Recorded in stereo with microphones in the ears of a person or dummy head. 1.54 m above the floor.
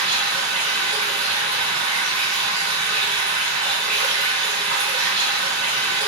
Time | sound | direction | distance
0.0 | running water | 50° right (ahead or behind) | 2 m